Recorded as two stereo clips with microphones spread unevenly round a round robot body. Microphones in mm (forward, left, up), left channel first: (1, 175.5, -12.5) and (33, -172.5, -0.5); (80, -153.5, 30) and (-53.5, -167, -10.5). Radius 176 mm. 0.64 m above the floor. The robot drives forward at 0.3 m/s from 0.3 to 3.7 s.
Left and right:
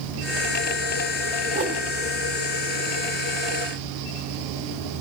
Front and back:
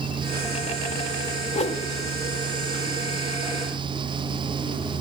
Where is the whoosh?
25° right, 0.9 m; by 1.8 s 30° right, 0.8 m.